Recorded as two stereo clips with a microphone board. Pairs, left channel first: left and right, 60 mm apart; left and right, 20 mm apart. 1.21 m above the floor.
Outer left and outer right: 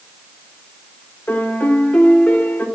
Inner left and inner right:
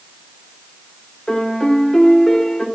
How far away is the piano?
About 0.9 m.